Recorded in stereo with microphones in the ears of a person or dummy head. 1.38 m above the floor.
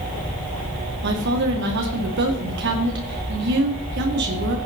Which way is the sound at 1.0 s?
60° right (ahead or behind).